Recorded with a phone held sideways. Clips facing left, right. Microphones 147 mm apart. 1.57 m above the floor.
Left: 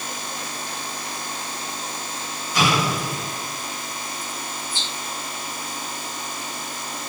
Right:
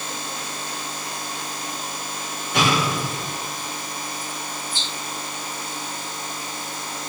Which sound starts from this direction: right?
An explosion, at 2.5 s.